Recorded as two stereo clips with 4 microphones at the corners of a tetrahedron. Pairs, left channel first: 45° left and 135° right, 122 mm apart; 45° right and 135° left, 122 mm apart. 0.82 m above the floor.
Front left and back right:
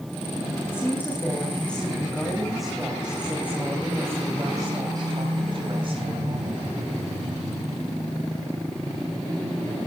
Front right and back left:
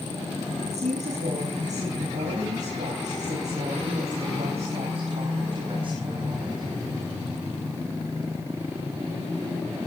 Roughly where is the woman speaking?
Behind left.